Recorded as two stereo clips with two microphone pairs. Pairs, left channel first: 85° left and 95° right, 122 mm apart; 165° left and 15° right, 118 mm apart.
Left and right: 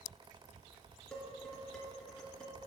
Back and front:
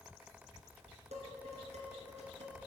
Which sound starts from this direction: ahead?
Dishes clattering, at 1.1 s.